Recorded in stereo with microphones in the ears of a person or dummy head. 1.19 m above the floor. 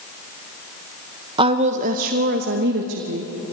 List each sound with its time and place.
1.4 s a woman speaking: 30° right (ahead or behind), 0.8 m; by 3.5 s 75° right (ahead or behind), 1.9 m